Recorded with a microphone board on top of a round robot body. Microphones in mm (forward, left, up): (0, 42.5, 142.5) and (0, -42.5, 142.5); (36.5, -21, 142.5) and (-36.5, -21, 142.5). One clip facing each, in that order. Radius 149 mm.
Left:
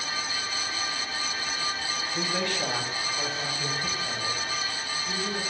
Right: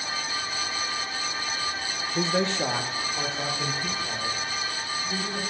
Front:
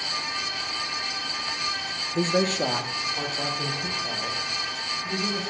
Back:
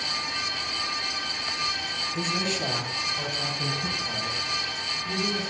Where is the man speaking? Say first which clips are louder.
Right 5 dB, front 7 dB; 30° right, 0.7 m; by 5.5 s 25° right, 5.5 m.